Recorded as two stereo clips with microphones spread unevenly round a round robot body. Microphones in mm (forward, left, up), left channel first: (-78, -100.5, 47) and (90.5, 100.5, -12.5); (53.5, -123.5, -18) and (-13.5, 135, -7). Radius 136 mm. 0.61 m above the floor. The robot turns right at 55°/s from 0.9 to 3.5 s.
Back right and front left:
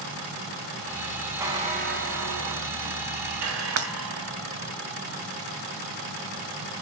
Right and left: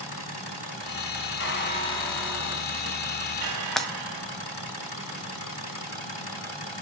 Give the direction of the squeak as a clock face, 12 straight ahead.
1 o'clock.